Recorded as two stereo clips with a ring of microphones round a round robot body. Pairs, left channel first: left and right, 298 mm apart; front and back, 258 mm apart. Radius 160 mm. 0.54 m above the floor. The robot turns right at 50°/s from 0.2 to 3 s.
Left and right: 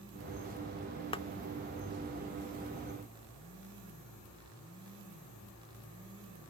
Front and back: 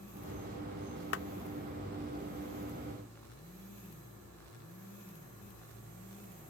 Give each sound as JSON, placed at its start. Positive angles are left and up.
{"t": 1.1, "sound": "a clap", "azimuth_deg": 20}